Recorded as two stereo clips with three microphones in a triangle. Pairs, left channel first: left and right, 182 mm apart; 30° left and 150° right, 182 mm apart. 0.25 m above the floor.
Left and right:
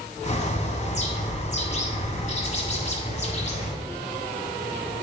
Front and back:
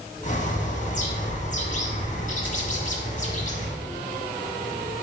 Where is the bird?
55° left, 1.4 m.